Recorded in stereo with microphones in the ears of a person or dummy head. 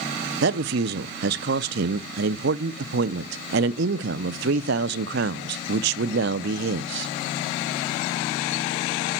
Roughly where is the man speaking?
Right.